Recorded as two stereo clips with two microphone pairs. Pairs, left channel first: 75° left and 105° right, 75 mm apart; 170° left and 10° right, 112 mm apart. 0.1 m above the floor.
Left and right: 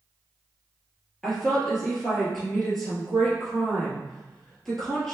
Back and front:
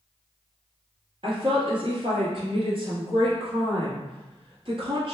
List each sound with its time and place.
1.2 s a woman speaking: 5° right, 2.0 m